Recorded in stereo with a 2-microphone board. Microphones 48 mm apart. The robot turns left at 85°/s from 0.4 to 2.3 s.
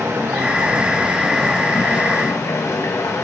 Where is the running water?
95° right, 2.5 m; by 3.2 s 100° left, 2.5 m.